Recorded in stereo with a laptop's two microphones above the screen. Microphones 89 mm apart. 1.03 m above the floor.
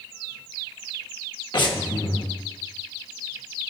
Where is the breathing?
60° left (ahead or behind), 1.1 m.